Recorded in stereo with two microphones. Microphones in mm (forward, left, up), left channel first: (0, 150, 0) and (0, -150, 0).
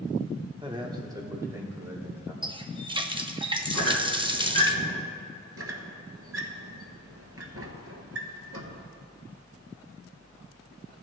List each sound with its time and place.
0.6 s a man speaking: 15° right (ahead or behind), 0.9 m; by 2.3 s 5° right (ahead or behind), 3 m
2.4 s a running tap: 15° right (ahead or behind), 0.6 m
3.7 s a squeak: 80° left, 2.0 m
5.6 s a squeak: 50° right (ahead or behind), 1.2 m